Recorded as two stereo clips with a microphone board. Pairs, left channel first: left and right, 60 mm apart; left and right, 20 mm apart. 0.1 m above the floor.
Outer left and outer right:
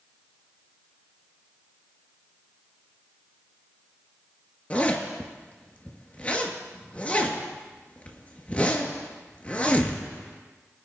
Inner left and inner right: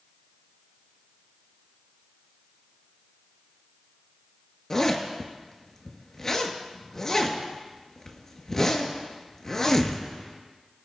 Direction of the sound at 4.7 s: 25° left (ahead or behind).